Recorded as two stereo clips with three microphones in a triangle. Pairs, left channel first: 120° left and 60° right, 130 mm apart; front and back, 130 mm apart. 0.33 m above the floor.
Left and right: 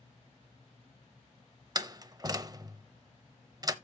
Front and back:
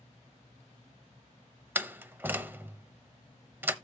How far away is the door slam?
About 0.8 m.